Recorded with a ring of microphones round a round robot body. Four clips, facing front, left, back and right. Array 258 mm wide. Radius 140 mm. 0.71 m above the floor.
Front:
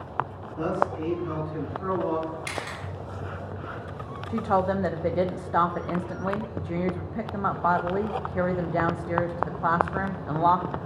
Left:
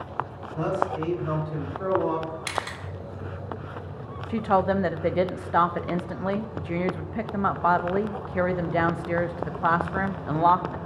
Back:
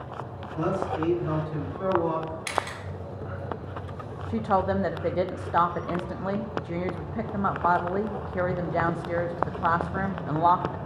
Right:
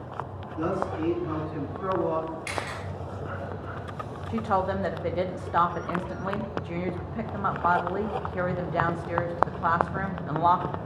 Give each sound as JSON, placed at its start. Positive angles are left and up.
{"t": 0.6, "sound": "a man speaking", "azimuth_deg": 120, "distance_m": 4.0}
{"t": 2.5, "sound": "a camera shutter", "azimuth_deg": 115, "distance_m": 1.3}
{"t": 4.3, "sound": "a woman speaking", "azimuth_deg": 90, "distance_m": 0.6}